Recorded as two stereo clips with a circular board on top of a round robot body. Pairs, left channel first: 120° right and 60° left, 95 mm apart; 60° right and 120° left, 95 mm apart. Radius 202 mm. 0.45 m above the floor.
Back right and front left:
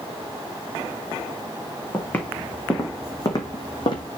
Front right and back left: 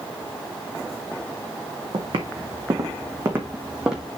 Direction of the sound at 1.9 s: 165° left.